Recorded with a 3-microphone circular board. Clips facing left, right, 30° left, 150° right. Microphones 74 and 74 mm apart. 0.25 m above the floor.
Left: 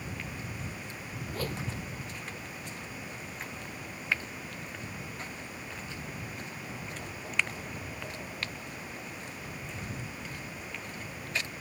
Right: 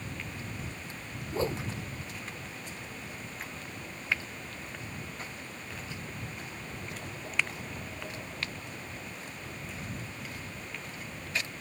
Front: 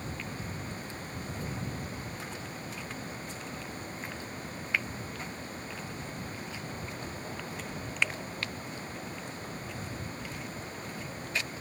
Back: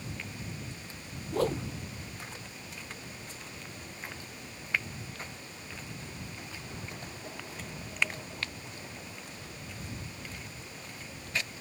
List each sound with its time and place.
1.3 s a whoosh: 155° right